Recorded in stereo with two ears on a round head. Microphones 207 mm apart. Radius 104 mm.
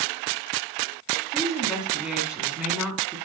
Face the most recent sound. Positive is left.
turn(degrees=-5)  # may be behind; listen again after turning